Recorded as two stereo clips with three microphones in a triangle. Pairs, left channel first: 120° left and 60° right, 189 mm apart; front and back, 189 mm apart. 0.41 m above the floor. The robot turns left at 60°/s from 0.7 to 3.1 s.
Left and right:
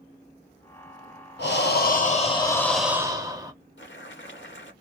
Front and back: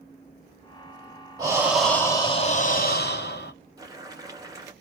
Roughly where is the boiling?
Left.